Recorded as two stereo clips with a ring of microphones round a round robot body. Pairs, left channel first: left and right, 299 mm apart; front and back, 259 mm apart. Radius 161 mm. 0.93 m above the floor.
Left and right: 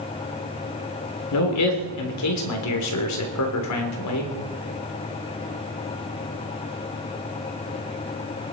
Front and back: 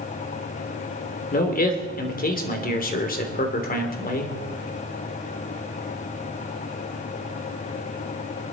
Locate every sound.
1.3 s a man speaking: 55° left, 3 m